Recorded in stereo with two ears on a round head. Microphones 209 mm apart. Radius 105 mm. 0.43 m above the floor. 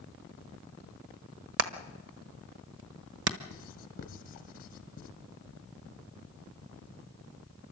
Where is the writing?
35° left (ahead or behind), 1.2 m.